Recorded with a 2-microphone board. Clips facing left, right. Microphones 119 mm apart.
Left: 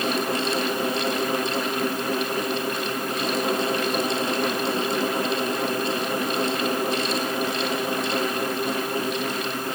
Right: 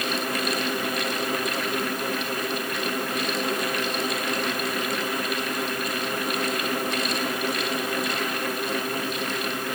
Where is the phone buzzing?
I don't hear a phone buzzing.